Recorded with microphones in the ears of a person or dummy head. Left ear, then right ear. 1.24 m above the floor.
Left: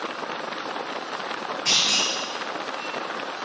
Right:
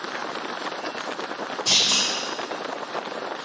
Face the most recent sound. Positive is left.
turn(degrees=25)  # may be behind; listen again after turning